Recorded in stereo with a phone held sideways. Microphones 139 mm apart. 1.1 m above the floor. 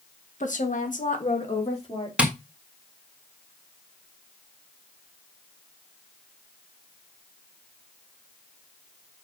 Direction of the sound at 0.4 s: 65° left (ahead or behind).